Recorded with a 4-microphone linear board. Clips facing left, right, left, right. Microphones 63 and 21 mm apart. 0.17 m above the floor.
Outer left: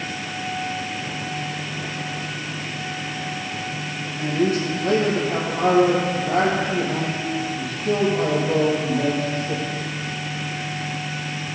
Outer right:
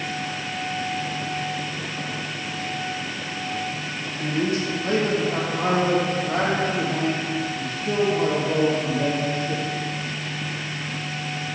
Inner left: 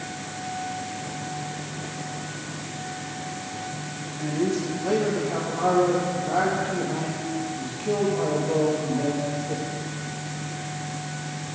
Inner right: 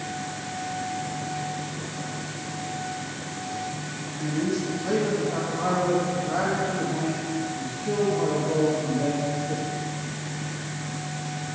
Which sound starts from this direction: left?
A man speaking, at 4.2 s.